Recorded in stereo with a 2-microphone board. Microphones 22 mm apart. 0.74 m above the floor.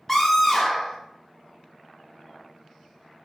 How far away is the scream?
About 0.7 m.